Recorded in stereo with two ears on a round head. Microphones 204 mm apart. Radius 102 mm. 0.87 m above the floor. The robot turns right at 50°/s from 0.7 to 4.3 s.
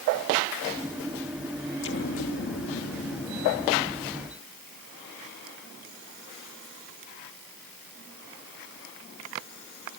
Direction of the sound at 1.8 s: 65° left.